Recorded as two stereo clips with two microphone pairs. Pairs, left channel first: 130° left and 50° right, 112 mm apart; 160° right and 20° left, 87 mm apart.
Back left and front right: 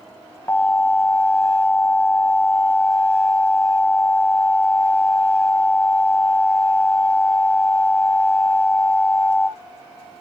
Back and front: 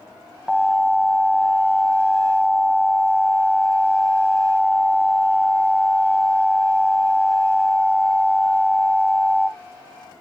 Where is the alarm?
90° left, 2.5 m.